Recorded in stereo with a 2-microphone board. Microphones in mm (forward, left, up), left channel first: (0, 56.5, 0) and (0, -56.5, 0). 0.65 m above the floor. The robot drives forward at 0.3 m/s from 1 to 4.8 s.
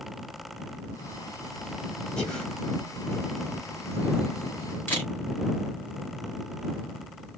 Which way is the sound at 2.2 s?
5° left (ahead or behind).